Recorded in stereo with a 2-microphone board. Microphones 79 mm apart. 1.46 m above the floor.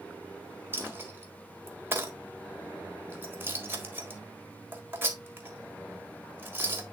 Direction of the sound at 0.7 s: 30° right (ahead or behind).